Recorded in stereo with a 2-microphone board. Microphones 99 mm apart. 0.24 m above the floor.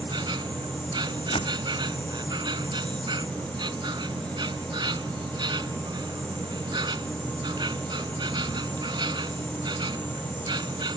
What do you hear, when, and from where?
0.0 s an insect: 50° right (ahead or behind)
1.3 s a door slam: 75° left (ahead or behind)